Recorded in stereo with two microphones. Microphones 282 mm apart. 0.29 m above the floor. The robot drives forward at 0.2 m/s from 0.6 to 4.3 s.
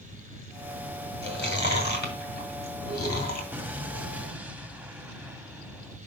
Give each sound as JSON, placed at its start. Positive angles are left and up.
{"t": 1.2, "sound": "chewing", "side_deg": 40, "distance_m": 1.9}
{"t": 3.5, "sound": "an explosion", "side_deg": -5, "distance_m": 0.6}